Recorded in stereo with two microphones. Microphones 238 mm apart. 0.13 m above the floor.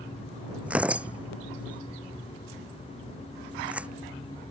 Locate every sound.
0.7 s tearing paper: 5° right (ahead or behind)